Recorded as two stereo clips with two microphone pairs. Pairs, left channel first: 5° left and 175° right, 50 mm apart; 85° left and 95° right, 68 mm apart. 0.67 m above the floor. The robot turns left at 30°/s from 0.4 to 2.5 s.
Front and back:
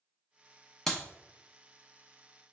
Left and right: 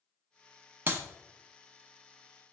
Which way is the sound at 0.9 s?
70° right.